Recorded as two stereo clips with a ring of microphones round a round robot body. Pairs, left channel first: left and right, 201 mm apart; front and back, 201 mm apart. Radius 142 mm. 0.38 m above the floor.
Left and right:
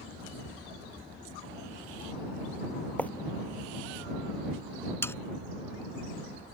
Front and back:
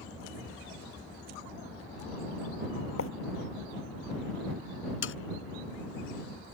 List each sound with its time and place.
3.0 s writing: 10° left
5.0 s sawing: 10° left